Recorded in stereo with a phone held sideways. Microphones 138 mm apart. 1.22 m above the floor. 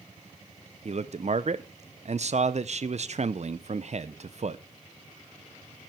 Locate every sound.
0.8 s a man speaking: 55° right (ahead or behind), 0.6 m